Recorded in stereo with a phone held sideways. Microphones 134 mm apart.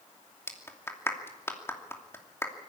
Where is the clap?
20° left (ahead or behind), 2.5 m.